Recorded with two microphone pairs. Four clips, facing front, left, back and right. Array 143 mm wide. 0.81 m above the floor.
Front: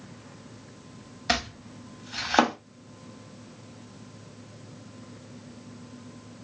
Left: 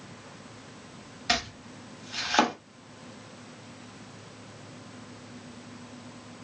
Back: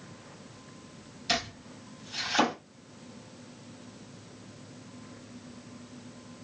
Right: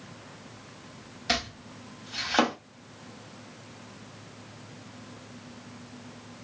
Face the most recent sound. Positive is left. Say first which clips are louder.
# left 1 dB, front 4 dB
turn(degrees=10)